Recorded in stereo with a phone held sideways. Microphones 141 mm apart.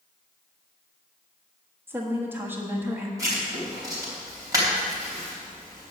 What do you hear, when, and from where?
1.9 s a woman speaking: 15° right (ahead or behind), 1.3 m
3.2 s writing: 20° right (ahead or behind), 3 m